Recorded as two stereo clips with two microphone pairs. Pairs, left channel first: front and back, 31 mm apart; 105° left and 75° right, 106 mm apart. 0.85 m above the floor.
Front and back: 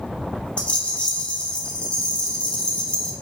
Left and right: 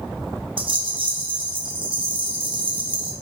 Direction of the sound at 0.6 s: 50° right.